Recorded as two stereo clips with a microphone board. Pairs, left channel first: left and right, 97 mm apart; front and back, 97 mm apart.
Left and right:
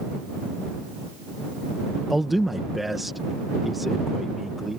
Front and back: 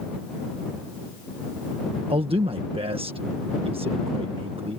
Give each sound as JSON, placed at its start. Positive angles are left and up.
{"t": 2.1, "sound": "a man speaking", "azimuth_deg": 180}